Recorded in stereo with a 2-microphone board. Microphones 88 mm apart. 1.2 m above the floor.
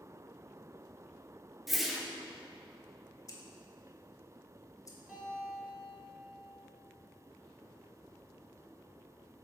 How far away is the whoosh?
About 0.6 m.